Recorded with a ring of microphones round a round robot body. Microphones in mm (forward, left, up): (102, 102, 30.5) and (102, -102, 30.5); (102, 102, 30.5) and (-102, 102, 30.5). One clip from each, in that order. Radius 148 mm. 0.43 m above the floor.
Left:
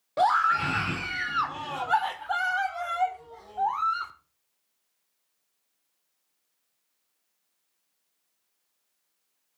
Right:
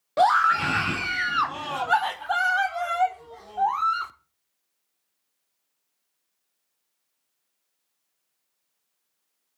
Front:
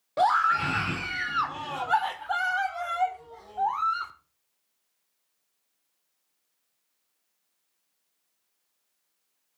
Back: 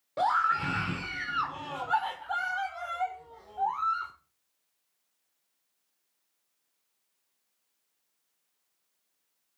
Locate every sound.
0.2 s a scream: 65° right, 0.9 m